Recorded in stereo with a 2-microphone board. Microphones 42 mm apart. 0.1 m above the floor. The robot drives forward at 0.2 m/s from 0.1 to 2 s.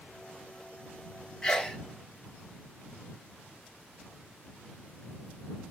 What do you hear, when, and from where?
1.4 s a sneeze: 15° left (ahead or behind), 1.3 m